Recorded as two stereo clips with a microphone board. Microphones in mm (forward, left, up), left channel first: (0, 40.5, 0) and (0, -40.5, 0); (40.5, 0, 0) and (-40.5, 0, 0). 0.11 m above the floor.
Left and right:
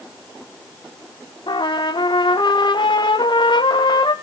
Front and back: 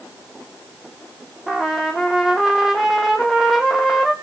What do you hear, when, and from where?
1.5 s a trumpet: 95° left, 1.6 m